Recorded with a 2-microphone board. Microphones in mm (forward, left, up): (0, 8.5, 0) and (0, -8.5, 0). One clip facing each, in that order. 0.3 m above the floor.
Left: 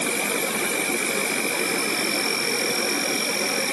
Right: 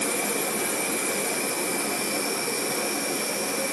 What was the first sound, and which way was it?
An insect, 75° left (ahead or behind).